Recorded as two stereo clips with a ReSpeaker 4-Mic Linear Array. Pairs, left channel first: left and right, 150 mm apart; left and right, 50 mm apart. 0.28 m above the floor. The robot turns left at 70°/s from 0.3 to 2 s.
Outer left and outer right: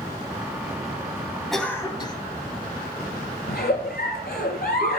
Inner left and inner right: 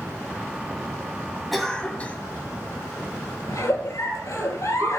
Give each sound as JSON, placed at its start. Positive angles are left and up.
{"t": 1.5, "sound": "a cough", "azimuth_deg": 180, "distance_m": 1.6}
{"t": 3.5, "sound": "a giggle", "side_deg": 80, "distance_m": 3.0}